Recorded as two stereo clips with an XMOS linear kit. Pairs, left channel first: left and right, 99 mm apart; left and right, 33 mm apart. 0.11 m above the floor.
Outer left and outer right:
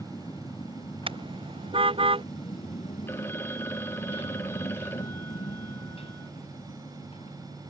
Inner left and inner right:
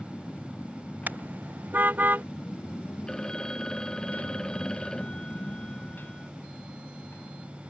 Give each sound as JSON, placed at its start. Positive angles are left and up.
{"t": 0.0, "sound": "a motorcycle", "side_deg": 35}
{"t": 1.1, "sound": "a car horn", "side_deg": -70}
{"t": 3.1, "sound": "a phone ringing", "side_deg": 25}